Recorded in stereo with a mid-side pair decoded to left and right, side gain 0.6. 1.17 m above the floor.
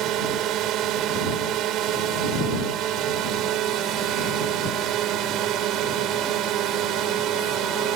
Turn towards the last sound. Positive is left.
turn(degrees=-65)